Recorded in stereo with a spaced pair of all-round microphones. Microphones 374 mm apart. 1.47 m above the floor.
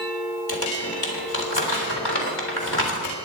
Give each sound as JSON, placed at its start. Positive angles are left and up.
{"t": 0.5, "sound": "crumpling", "side_deg": 75, "distance_m": 3.5}